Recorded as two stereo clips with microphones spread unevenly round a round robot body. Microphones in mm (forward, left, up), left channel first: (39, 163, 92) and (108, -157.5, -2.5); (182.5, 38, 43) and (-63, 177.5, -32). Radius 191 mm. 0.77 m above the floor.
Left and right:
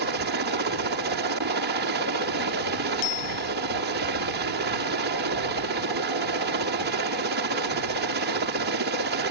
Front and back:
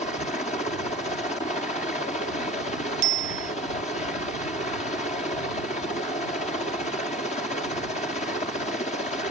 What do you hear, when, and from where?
0.0 s a helicopter: 110° right
3.0 s a bicycle bell: 155° left